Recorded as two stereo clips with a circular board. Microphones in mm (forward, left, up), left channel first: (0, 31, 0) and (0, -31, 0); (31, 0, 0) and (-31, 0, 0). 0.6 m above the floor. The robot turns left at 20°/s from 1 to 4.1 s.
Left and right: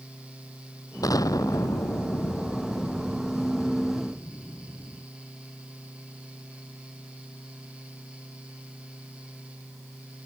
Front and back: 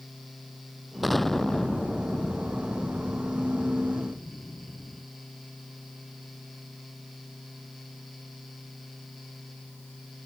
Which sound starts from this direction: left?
An explosion, at 1.0 s.